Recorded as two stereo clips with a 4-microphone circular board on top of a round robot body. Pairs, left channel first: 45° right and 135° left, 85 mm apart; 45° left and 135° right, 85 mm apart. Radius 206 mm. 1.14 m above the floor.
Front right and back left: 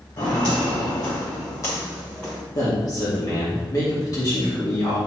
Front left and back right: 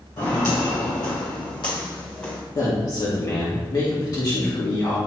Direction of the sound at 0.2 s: Straight ahead.